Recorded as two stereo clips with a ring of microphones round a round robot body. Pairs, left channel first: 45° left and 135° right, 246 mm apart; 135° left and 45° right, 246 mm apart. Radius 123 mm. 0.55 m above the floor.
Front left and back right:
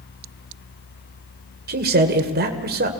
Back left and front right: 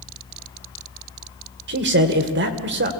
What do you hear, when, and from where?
1.7 s a man speaking: 85° right, 2.5 m